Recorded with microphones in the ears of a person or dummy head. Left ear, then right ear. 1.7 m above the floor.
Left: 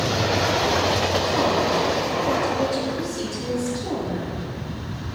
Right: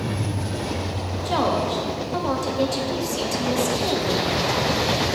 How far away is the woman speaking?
About 0.9 m.